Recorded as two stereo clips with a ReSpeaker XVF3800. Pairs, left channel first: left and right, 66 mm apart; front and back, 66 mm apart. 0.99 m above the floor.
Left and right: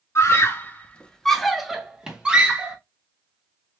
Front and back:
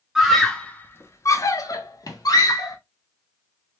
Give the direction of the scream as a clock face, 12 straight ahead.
9 o'clock.